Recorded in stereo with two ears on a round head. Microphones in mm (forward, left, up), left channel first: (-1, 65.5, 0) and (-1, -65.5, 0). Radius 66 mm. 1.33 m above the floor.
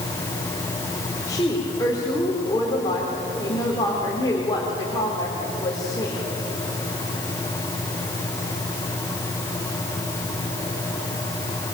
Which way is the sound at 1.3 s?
25° left (ahead or behind).